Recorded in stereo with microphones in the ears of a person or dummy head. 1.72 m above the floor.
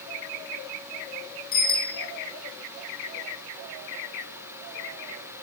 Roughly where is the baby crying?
No baby crying in this recording.